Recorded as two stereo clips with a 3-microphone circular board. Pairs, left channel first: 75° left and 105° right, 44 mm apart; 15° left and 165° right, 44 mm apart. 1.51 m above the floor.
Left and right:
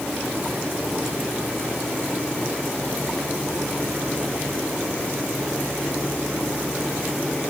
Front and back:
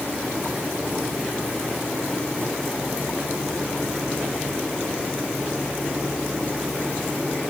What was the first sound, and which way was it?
Only background noise.